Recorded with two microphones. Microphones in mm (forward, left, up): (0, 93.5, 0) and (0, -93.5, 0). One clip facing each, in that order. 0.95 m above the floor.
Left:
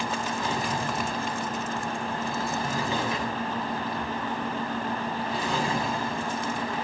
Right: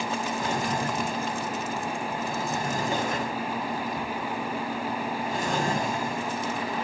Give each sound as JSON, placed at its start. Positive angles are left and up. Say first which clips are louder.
{"t": 0.4, "sound": "a drawer", "louder": "right 2 dB", "side_deg": -45, "distance_m": 2.0}